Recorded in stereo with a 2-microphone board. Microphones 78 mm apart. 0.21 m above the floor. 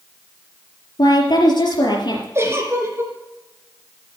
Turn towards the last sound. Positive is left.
turn(degrees=-35)  # may be behind; listen again after turning